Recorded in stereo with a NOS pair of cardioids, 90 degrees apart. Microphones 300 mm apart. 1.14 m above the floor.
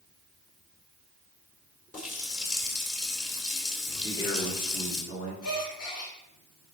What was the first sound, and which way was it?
A running tap, 25° left.